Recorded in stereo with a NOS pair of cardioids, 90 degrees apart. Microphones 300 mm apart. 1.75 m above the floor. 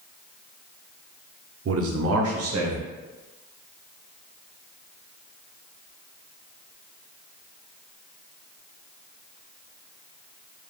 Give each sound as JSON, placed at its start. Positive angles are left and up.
{"t": 1.6, "sound": "a man speaking", "azimuth_deg": -45, "distance_m": 1.2}